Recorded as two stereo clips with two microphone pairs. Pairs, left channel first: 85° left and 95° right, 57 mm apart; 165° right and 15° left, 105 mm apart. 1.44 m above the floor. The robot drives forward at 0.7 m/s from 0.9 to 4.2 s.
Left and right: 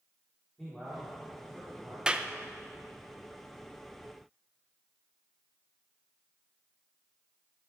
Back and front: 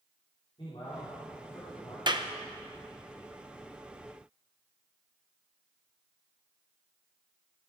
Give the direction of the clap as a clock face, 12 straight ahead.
1 o'clock.